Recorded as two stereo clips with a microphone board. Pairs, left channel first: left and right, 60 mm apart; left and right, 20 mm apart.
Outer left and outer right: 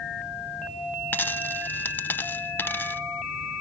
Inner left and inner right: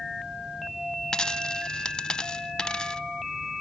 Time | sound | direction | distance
1.1 | a dropped coin | 35° left (ahead or behind) | 0.6 m